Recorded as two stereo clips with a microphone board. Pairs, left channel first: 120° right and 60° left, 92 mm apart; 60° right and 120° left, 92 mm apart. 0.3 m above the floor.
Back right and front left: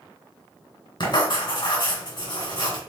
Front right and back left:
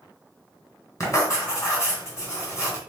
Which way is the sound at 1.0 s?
110° right.